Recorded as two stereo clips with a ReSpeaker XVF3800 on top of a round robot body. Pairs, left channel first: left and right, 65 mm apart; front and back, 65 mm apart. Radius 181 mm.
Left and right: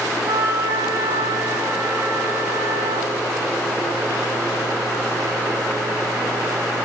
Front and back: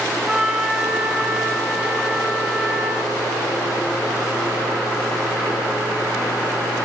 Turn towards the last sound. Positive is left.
turn(degrees=-105)